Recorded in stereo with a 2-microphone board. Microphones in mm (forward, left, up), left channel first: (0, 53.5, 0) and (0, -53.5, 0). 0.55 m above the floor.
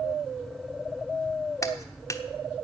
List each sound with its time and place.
1.6 s a clap: 30° left (ahead or behind), 1.0 m